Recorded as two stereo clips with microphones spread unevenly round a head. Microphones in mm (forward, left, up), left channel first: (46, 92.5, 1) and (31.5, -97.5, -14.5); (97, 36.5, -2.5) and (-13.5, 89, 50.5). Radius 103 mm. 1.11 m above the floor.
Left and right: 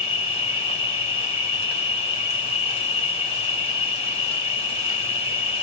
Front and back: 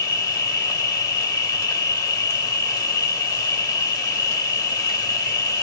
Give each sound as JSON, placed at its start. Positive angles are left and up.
{"t": 0.0, "sound": "an insect", "azimuth_deg": 25, "distance_m": 2.0}